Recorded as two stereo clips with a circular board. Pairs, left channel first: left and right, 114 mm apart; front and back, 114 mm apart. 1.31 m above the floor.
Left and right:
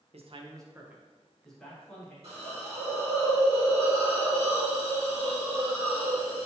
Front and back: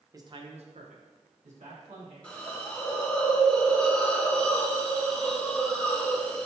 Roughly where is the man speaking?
Behind right.